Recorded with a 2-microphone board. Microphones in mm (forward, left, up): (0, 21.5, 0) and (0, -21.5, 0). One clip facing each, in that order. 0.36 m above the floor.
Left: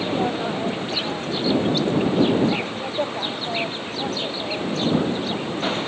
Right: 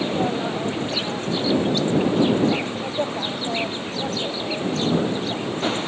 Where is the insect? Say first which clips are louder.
Even; 5° left (ahead or behind).